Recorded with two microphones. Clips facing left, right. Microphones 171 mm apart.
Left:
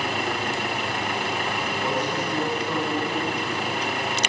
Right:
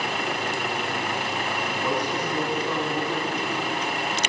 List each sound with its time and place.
1.8 s a man speaking: 30° left (ahead or behind), 3 m